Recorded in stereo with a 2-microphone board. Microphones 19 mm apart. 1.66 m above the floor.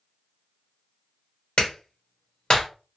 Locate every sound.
1.6 s a clap: 60° left (ahead or behind), 1.2 m